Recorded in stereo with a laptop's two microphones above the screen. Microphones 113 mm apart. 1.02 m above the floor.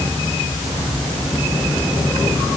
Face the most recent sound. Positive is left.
No sound to turn to.